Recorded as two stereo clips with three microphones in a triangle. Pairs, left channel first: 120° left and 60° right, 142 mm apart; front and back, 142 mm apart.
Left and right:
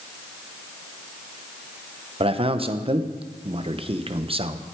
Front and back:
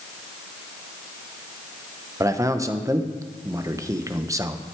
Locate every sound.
2.2 s a man speaking: 115° right, 0.8 m